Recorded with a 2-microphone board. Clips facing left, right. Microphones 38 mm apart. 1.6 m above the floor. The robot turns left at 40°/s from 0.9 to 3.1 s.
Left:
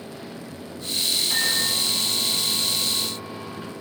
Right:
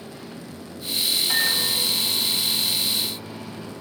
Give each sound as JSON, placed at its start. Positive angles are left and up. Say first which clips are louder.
{"t": 1.3, "sound": "a microwave", "louder": "right 1 dB", "azimuth_deg": -110, "distance_m": 5.5}